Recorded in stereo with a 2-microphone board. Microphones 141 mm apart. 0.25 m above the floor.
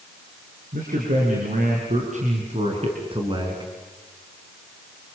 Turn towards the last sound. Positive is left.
turn(degrees=-25)  # may be behind; listen again after turning